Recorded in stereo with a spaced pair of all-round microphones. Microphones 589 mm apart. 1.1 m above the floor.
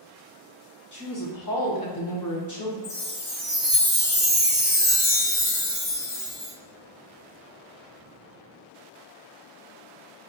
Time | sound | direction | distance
0.9 | a woman speaking | 30° left (ahead or behind) | 1.3 m
2.8 | a chime | 80° left | 1.4 m